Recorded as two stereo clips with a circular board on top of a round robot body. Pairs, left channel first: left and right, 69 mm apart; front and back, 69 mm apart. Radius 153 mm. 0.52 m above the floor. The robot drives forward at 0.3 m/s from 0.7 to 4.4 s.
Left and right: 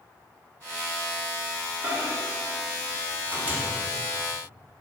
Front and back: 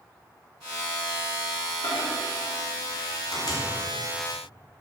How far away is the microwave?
About 2.5 m.